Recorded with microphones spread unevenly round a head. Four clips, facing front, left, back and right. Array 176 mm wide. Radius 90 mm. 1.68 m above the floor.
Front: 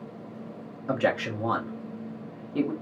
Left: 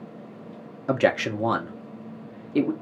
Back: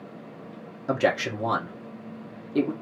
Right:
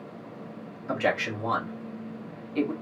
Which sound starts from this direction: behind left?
A man speaking, at 0.9 s.